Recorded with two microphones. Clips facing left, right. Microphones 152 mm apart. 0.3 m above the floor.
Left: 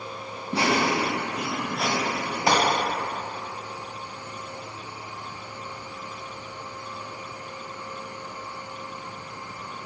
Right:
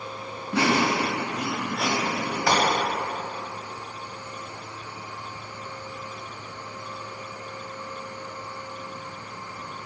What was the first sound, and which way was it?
Laughter, 15° left (ahead or behind).